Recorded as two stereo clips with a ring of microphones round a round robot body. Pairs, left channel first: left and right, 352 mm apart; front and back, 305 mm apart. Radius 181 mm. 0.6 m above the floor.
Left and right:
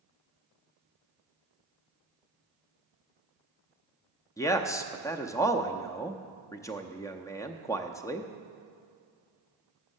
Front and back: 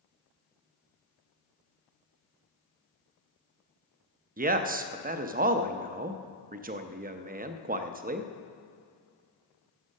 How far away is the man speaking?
About 0.7 m.